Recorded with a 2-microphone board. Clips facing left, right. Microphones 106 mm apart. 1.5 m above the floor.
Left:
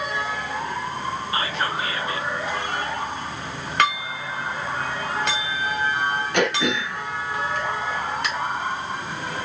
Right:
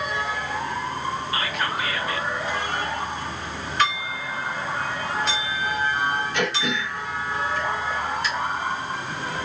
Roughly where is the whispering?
Left.